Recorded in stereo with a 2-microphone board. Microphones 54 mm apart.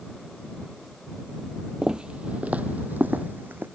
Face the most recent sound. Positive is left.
turn(degrees=-40)  # may be behind; listen again after turning